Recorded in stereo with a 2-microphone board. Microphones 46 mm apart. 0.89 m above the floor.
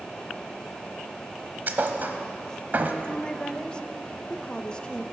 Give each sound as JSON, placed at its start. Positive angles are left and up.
{"t": 1.7, "sound": "a thud", "side_deg": -45, "distance_m": 1.1}
{"t": 3.0, "sound": "a woman speaking", "side_deg": 20, "distance_m": 0.7}